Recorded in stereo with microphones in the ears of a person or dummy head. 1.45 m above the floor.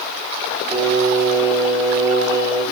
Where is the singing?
10° right (ahead or behind), 0.8 m.